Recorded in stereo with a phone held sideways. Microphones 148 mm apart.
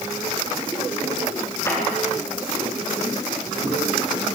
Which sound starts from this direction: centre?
A clap, at 1.6 s.